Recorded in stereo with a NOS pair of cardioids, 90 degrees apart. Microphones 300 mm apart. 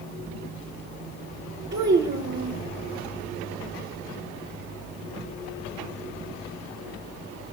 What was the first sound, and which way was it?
A child speaking, 40° right.